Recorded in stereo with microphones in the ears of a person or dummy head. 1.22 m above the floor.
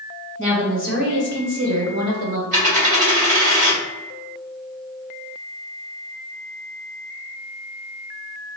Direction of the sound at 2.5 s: 40° right (ahead or behind).